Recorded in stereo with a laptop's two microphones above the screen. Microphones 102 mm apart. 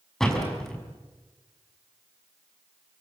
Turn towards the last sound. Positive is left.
turn(degrees=5)  # may be behind; listen again after turning